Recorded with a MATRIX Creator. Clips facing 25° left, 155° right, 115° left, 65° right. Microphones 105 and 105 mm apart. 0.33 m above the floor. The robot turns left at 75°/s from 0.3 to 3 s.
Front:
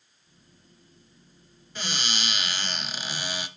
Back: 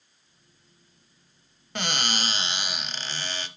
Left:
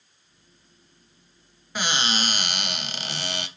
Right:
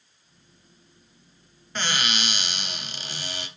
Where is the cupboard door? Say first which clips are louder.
Back 4 dB, left 2 dB; 165° right, 0.7 m; by 3.5 s 100° left, 0.7 m.